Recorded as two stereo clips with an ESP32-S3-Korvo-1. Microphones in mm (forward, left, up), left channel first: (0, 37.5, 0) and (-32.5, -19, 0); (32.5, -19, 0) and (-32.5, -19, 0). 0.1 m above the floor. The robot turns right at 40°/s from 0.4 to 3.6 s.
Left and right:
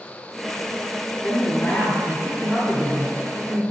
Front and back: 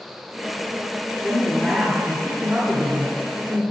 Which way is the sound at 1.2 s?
105° left.